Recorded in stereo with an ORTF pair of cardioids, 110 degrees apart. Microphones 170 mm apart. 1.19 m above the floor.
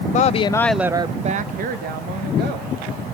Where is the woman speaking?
50° left, 0.8 m; by 3.1 s 75° right, 2.5 m.